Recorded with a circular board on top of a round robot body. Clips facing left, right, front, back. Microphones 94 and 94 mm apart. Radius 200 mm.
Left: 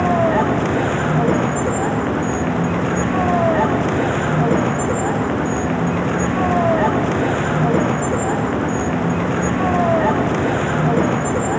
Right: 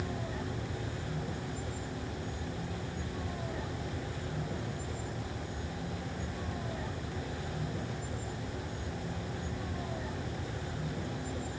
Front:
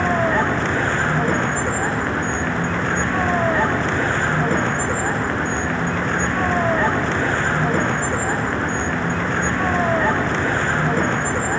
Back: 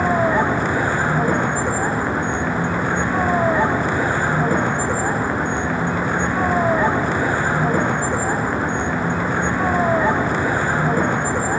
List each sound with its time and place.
0.0 s a vehicle: 100° left